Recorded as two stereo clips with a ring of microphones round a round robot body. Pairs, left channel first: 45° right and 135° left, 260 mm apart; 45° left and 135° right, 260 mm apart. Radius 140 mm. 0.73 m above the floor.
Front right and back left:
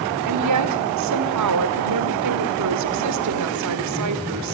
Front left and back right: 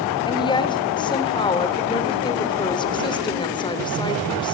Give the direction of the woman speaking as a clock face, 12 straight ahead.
8 o'clock.